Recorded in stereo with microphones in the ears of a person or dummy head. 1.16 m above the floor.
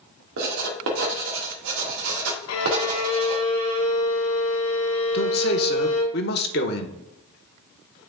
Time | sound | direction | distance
0.4 | writing | 85° right | 1.8 m
2.5 | a violin | 85° left | 1.3 m
5.1 | a man speaking | 45° left (ahead or behind) | 1.0 m